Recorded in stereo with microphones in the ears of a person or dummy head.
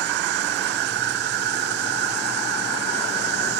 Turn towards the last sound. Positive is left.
turn(degrees=-55)  # may be behind; listen again after turning